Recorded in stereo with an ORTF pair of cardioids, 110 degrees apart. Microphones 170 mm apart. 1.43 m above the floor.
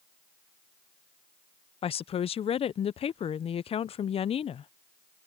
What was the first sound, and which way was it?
A woman speaking, 35° left.